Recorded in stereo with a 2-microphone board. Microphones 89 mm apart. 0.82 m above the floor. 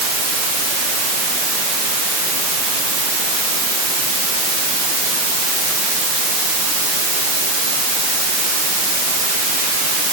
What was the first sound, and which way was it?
Only background noise.